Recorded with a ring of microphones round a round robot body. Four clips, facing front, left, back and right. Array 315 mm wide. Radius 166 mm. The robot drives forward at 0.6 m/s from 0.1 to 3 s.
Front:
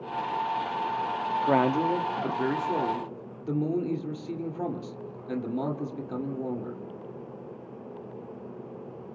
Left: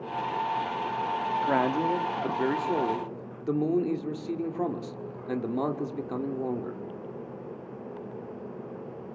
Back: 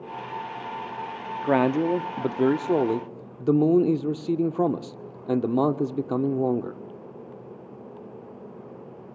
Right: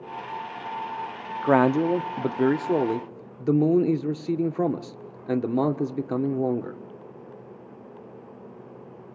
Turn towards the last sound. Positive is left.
turn(degrees=-150)